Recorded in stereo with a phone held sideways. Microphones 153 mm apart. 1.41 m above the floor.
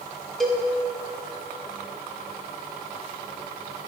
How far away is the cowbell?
About 1.1 m.